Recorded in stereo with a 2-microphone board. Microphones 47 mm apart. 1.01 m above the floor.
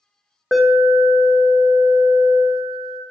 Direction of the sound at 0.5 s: Centre (ahead or behind).